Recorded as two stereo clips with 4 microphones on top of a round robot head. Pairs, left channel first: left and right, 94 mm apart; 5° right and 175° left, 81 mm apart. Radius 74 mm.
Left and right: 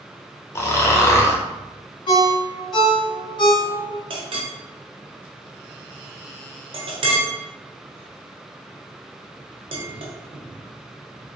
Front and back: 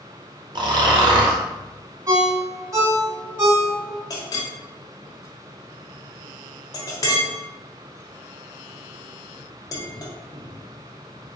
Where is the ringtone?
130° left, 1.9 m.